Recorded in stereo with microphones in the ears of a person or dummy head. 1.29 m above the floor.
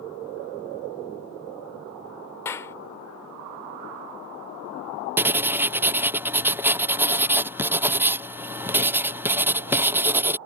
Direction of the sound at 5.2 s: 10° right (ahead or behind).